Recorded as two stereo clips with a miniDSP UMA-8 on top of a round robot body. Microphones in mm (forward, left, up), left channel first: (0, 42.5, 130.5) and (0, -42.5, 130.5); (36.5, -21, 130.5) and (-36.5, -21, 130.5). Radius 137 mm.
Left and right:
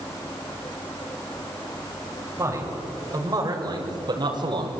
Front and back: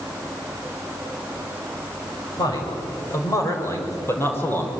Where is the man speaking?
35° right, 6 m; by 4.7 s 65° right, 4.5 m.